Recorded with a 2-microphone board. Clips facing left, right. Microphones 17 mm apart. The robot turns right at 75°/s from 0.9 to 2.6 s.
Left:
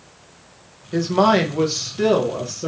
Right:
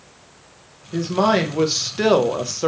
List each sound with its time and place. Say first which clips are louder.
0.9 s a woman speaking: left 2 dB; 145° left, 0.7 m; by 2.7 s 90° right, 0.7 m